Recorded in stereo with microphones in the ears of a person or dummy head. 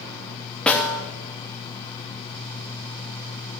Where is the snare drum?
5° left (ahead or behind), 1.3 m.